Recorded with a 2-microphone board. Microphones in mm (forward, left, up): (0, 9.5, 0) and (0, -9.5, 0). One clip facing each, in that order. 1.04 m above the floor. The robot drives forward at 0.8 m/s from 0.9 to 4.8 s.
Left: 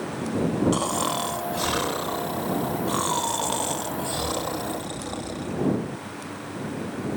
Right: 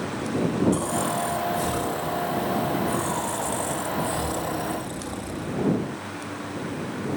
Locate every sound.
0.7 s snoring: 40° left (ahead or behind), 2 m